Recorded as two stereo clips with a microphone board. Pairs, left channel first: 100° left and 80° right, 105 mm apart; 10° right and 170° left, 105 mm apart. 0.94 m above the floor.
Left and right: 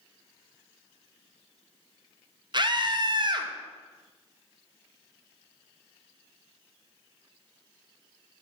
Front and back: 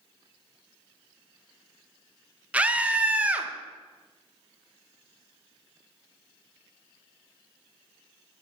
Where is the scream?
110° right, 0.5 m.